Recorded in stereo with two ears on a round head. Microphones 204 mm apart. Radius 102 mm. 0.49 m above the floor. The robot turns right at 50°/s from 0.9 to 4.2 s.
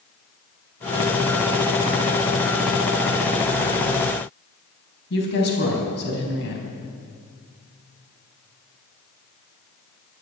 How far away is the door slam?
I don't hear a door slam.